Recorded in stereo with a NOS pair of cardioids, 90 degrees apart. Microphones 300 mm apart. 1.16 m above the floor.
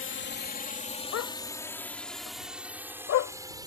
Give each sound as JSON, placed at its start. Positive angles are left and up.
{"t": 0.0, "sound": "a drone", "azimuth_deg": 45}
{"t": 1.1, "sound": "a dog barking", "azimuth_deg": 65}